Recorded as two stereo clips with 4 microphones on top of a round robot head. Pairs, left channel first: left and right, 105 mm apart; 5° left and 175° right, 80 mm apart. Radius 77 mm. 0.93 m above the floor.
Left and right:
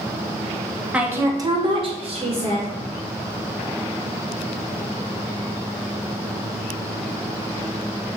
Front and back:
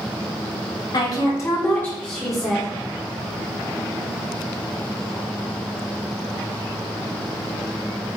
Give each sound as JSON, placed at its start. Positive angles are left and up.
{"t": 0.9, "sound": "a woman speaking", "azimuth_deg": -10, "distance_m": 0.6}